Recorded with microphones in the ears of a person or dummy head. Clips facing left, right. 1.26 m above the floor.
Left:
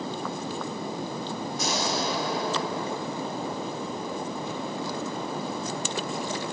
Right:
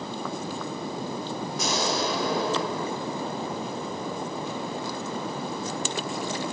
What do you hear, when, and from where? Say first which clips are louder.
1.6 s an explosion: right 2 dB; 55° right (ahead or behind), 4 m